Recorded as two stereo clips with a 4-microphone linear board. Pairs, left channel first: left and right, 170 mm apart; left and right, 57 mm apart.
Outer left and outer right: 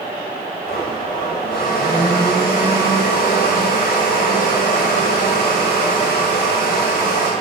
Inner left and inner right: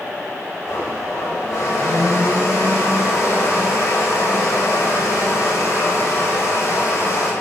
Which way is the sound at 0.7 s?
70° left (ahead or behind).